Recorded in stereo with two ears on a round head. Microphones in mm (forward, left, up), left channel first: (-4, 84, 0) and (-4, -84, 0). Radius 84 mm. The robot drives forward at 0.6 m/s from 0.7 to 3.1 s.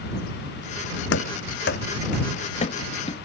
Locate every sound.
1.1 s running footsteps: 65° left (ahead or behind); by 3.1 s 25° left (ahead or behind)